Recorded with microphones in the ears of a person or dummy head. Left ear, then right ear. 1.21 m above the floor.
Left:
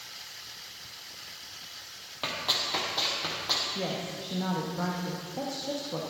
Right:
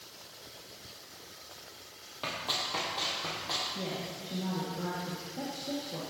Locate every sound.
2.2 s running footsteps: 10° left (ahead or behind), 2.5 m; by 3.6 s 15° left (ahead or behind), 3 m
3.8 s a woman speaking: 65° left (ahead or behind), 1.6 m